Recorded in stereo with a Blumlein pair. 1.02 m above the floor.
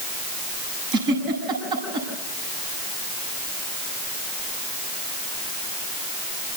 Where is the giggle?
35° right, 8 m.